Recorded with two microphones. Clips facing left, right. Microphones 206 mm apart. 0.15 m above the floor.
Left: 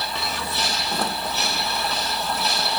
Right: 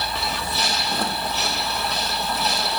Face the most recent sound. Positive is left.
No sound to turn to.